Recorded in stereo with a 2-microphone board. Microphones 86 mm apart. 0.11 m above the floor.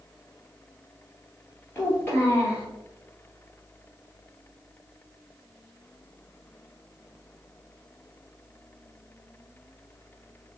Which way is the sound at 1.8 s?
30° left (ahead or behind).